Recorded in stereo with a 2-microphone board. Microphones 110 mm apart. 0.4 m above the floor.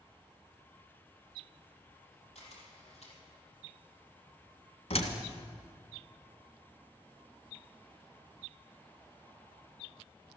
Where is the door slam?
70° left (ahead or behind), 2.0 m.